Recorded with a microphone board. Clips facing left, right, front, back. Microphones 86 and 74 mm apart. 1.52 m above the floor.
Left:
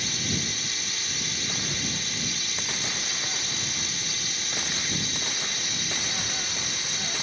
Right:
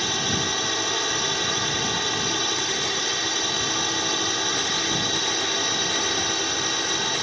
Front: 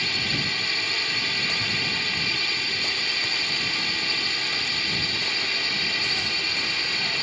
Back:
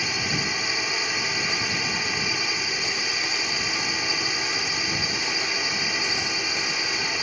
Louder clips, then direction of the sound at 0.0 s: Right 6 dB, back 1 dB; 110° right.